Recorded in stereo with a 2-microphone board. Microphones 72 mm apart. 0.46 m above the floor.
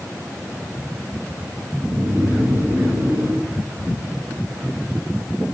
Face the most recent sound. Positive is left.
turn(degrees=-35)  # may be behind; listen again after turning